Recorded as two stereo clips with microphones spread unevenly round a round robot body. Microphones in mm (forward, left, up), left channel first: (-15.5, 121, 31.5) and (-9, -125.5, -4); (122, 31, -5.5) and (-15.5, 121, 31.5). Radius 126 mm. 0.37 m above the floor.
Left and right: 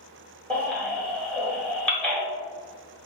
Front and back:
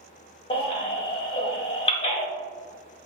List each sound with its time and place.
0.5 s a baby crying: straight ahead, 0.9 m